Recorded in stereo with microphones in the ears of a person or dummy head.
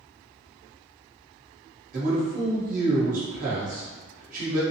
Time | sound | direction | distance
1.9 | a man speaking | 50° right (ahead or behind) | 1.5 m